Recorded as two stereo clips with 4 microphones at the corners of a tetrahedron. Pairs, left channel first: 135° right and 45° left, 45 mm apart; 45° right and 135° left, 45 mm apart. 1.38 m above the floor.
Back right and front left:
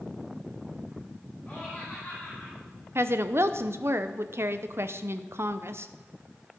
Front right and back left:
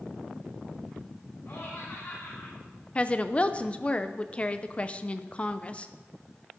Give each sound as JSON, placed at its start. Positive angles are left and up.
{"t": 1.5, "sound": "laughter", "azimuth_deg": -70, "distance_m": 4.5}
{"t": 3.0, "sound": "a woman speaking", "azimuth_deg": 20, "distance_m": 0.7}